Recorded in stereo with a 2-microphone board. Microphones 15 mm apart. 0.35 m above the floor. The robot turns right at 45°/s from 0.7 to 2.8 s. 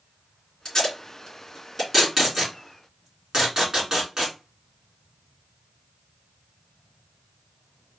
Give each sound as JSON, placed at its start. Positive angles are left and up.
{"t": 0.7, "sound": "tape being pulled", "side_deg": 45, "distance_m": 2.5}